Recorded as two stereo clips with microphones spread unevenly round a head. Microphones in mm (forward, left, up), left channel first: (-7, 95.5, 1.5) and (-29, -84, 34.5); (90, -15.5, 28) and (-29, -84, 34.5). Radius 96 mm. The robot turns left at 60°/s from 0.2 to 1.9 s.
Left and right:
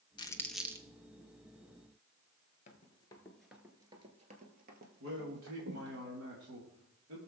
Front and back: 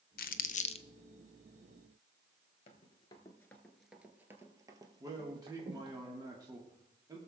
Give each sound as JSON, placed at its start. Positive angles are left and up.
{"t": 0.2, "sound": "crumpling", "azimuth_deg": 15, "distance_m": 0.6}
{"t": 2.7, "sound": "running footsteps", "azimuth_deg": 35, "distance_m": 1.2}
{"t": 5.0, "sound": "a man speaking", "azimuth_deg": -85, "distance_m": 1.8}